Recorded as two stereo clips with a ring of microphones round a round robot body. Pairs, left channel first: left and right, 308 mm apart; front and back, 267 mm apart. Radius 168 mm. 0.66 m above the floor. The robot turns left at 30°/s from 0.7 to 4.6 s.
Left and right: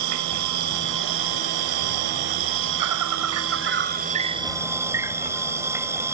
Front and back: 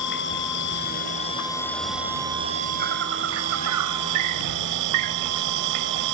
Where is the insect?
55° right; by 6.1 s 170° right.